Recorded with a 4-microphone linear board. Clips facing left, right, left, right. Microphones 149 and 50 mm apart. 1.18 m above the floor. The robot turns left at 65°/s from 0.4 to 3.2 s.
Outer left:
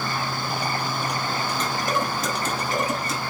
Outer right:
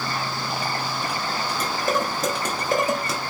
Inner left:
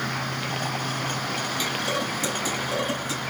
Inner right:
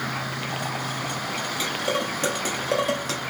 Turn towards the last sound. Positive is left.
turn(degrees=-65)  # may be behind; listen again after turning